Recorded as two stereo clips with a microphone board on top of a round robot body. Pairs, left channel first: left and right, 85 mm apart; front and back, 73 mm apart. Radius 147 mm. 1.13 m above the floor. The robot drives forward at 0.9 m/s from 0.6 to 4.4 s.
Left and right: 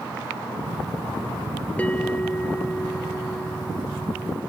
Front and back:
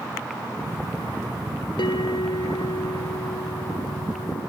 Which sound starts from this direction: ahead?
A bell, at 1.8 s.